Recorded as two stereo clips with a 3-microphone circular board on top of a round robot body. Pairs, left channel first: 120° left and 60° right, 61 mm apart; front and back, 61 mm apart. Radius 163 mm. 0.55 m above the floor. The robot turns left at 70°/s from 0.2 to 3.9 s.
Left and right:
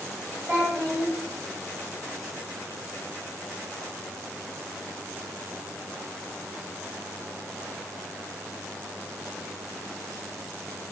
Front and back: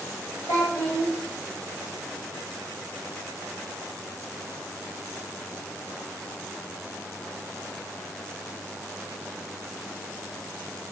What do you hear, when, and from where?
0.5 s a child speaking: 5° right, 1.4 m; by 1.1 s 55° right, 1.4 m